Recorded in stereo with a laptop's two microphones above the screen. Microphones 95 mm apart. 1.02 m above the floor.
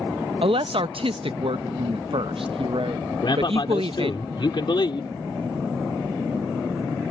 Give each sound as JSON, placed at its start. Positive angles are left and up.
{"t": 0.4, "sound": "a woman speaking", "side_deg": -70}
{"t": 3.1, "sound": "a man speaking", "side_deg": 55}